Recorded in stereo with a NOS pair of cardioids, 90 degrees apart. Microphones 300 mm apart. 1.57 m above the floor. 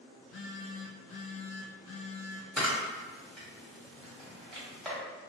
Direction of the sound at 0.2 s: 45° left.